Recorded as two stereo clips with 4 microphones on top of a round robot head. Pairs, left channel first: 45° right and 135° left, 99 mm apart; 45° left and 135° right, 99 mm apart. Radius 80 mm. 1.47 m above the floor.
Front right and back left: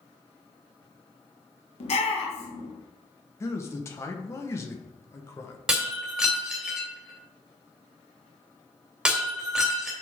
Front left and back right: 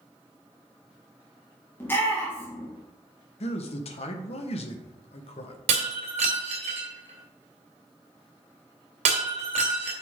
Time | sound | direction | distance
1.8 | a shout | 25° right | 1.9 m
3.4 | a man speaking | 20° left | 1.2 m
5.7 | breaking glass | 145° right | 2 m